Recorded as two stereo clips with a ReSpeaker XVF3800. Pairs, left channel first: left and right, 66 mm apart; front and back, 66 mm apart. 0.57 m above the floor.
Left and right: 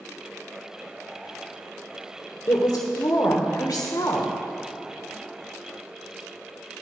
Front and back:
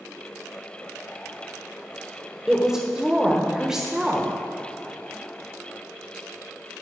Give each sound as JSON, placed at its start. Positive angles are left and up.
{"t": 2.5, "sound": "a woman speaking", "azimuth_deg": 100, "distance_m": 1.3}